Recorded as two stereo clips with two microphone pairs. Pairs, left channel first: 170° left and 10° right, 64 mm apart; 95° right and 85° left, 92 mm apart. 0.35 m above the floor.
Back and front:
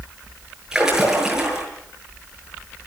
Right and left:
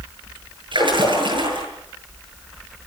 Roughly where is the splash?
Left.